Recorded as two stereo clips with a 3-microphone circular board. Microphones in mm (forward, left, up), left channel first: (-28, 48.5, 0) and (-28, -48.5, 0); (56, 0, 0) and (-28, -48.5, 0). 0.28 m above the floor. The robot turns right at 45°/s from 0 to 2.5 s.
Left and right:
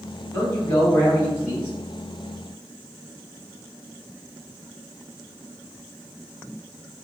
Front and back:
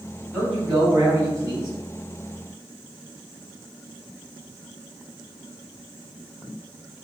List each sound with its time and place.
0.3 s a man speaking: 140° left, 1.8 m; by 1.7 s 160° right, 1.8 m